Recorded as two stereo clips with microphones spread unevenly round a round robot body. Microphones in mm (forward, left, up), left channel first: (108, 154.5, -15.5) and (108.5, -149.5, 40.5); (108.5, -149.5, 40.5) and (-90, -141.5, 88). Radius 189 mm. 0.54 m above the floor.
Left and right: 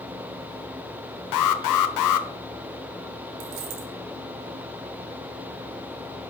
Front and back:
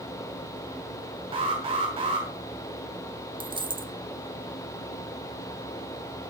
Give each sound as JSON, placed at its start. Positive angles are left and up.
{"t": 1.3, "sound": "an alarm", "azimuth_deg": 105, "distance_m": 1.1}
{"t": 3.4, "sound": "a dropped coin", "azimuth_deg": -115, "distance_m": 1.9}